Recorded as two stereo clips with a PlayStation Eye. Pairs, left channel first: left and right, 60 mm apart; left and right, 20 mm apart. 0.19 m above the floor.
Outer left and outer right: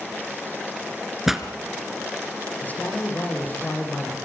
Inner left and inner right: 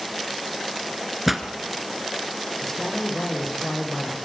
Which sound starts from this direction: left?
A man speaking, at 2.6 s.